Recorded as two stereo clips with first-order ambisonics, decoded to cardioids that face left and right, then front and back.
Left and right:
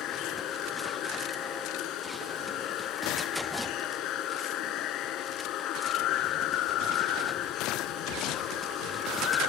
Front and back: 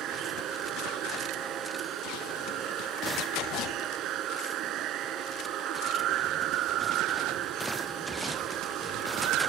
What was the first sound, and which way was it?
Running water, 135° left.